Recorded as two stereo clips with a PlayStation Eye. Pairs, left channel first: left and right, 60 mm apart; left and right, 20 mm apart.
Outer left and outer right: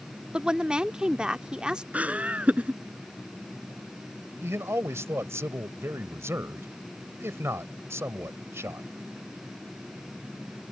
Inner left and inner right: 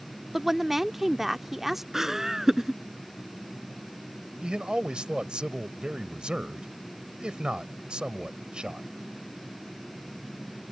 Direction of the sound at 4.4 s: 55° right (ahead or behind).